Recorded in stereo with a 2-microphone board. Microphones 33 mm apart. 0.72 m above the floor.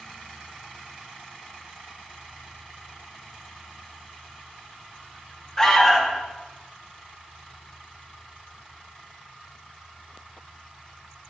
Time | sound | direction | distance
5.6 | an alarm | 20° left (ahead or behind) | 1.5 m